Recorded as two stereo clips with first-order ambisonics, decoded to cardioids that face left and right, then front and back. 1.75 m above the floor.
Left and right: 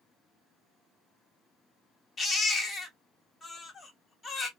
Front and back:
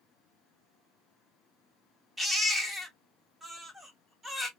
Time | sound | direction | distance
2.2 | a baby crying | 100° left | 0.7 m